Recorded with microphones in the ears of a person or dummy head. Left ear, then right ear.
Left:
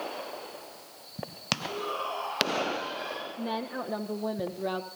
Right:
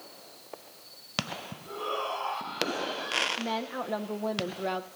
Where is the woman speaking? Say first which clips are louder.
Right 1 dB; 20° right (ahead or behind), 1.1 m.